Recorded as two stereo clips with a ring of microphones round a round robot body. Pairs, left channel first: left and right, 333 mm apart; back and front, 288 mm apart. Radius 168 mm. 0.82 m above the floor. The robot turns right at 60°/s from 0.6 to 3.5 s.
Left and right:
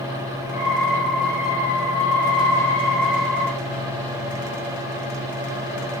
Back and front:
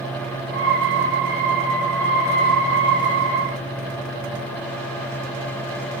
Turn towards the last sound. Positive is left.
No sound to turn to.